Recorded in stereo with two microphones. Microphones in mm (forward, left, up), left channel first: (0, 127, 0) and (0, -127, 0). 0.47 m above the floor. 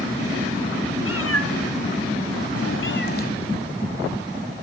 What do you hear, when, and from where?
1.0 s a cat meowing: 60° left (ahead or behind), 1.8 m; by 3.3 s 35° left (ahead or behind), 1.1 m